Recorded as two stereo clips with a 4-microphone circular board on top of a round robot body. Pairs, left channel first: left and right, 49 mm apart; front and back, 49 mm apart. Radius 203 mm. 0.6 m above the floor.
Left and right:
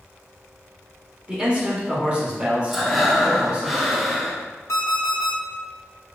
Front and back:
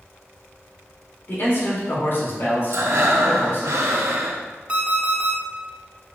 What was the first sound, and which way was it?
A man speaking, 25° right.